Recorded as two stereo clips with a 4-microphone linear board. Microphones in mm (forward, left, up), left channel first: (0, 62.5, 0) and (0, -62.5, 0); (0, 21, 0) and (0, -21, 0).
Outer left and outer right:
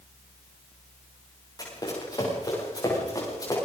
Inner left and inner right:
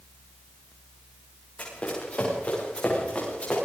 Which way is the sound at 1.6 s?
35° left (ahead or behind).